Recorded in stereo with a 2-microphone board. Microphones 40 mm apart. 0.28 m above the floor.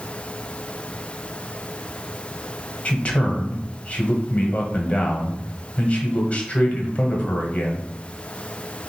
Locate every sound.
2.9 s a man speaking: 30° left (ahead or behind), 1.1 m